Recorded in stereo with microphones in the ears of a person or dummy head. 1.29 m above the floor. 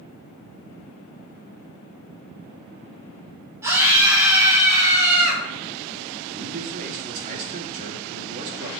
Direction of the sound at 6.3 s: 40° right (ahead or behind).